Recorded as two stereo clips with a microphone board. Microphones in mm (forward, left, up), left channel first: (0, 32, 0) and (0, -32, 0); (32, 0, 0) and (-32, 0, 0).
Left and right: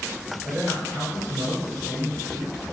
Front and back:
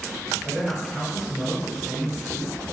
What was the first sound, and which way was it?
A man speaking, 110° right.